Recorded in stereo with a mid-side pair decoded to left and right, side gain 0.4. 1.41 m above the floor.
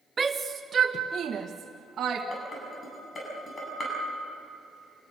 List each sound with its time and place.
0.2 s a shout: 30° right, 0.9 m; by 2.2 s 55° right, 1.9 m
2.3 s dishes clattering: 45° left, 8.5 m